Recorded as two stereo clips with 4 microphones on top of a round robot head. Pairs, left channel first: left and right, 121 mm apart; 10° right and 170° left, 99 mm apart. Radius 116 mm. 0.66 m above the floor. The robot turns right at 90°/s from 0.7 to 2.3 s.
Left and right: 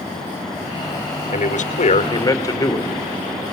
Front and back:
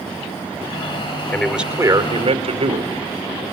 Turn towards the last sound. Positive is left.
turn(degrees=150)